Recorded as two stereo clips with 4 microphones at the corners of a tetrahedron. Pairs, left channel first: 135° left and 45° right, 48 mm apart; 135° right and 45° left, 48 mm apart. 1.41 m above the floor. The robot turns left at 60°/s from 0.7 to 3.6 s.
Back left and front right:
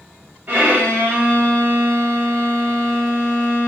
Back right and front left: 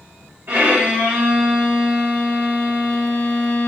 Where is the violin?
5° left, 1.0 m; by 3.7 s 170° right, 1.0 m.